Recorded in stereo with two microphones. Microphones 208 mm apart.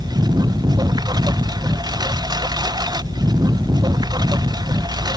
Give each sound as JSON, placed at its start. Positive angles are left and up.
{"t": 0.0, "sound": "a lawn mower", "side_deg": -20}